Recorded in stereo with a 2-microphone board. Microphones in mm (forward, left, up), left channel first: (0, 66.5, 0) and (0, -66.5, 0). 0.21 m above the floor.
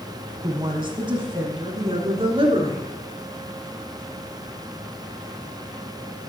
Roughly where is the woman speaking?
Right.